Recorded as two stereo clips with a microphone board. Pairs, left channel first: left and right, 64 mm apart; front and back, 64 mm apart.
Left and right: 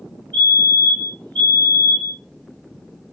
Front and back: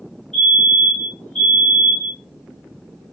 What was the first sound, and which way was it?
A fire alarm, 65° left.